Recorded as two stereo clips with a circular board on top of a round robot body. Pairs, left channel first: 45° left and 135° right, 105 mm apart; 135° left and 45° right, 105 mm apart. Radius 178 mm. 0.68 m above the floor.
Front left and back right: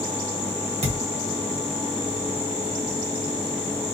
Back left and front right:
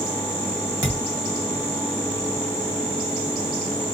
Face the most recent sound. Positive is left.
turn(degrees=-115)